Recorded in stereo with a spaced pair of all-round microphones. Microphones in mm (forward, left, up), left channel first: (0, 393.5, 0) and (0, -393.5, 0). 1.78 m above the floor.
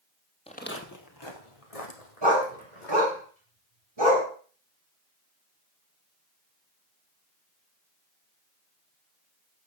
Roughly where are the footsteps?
Centre.